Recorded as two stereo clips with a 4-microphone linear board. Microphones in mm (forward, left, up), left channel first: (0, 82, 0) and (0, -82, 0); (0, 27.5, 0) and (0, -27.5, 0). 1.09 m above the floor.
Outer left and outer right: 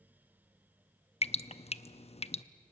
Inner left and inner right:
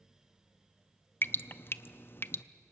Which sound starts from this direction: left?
Dripping, at 1.2 s.